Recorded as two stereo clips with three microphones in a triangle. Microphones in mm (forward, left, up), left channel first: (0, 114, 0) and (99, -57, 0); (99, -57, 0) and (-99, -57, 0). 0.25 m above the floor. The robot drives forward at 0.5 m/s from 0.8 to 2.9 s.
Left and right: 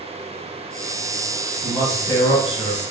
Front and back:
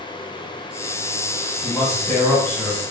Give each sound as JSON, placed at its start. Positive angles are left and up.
{"t": 1.6, "sound": "a man speaking", "azimuth_deg": 55, "distance_m": 1.2}